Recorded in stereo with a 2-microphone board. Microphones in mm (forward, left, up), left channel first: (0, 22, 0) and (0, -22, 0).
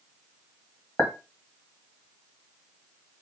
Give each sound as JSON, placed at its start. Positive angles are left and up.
{"t": 1.0, "sound": "a clink", "side_deg": 70, "distance_m": 1.2}